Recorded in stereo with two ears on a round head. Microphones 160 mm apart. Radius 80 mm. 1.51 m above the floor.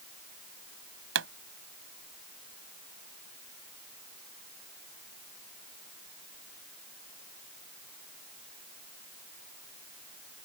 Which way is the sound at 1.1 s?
85° right.